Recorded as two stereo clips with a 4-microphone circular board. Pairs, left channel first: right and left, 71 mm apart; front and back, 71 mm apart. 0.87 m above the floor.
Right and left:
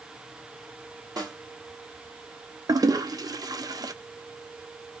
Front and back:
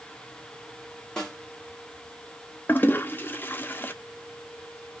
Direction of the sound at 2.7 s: 60° left.